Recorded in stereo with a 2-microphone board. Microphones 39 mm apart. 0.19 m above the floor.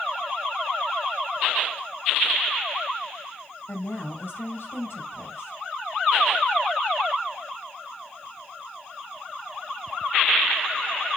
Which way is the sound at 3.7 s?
60° left (ahead or behind).